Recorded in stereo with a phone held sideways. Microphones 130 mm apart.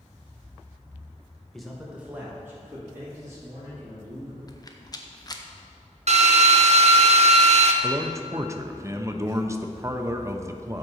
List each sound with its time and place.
1.5 s a man speaking: 5° left (ahead or behind), 1.1 m; by 4.4 s 25° right (ahead or behind), 4.5 m
4.5 s a rattle: 30° left (ahead or behind), 0.6 m
6.1 s a drill: 60° right (ahead or behind), 0.6 m
7.8 s a man speaking: 25° right (ahead or behind), 0.5 m